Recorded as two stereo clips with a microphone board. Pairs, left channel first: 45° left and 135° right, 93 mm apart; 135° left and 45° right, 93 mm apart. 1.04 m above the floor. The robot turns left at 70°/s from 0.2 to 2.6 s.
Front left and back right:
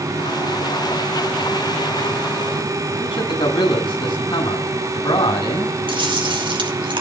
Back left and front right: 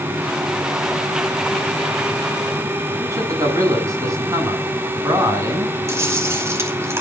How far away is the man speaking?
About 8 m.